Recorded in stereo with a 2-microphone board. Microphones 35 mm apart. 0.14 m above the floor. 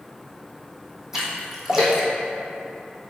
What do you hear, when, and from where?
1.1 s a splash: 10° right (ahead or behind), 1.6 m